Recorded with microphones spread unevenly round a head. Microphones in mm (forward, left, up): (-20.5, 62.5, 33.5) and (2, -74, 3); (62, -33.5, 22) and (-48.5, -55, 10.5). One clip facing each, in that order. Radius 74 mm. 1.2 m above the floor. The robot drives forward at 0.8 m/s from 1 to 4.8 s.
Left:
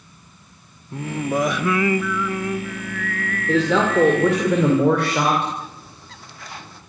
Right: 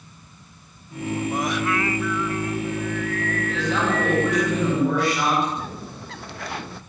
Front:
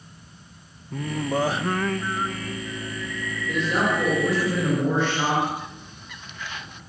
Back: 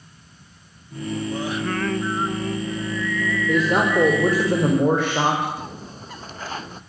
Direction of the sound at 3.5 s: 125° left.